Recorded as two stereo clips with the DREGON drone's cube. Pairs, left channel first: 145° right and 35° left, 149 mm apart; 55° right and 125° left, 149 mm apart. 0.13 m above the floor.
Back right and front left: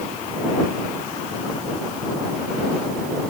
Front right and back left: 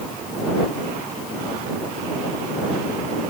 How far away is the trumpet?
No trumpet in this recording.